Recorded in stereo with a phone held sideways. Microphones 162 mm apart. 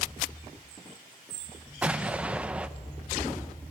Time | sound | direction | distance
1.8 | an explosion | 10° right (ahead or behind) | 0.7 m